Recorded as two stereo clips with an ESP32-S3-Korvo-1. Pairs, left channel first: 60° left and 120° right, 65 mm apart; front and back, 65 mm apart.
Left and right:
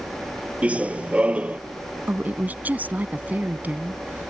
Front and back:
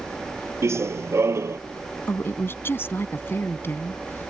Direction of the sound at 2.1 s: 55° right.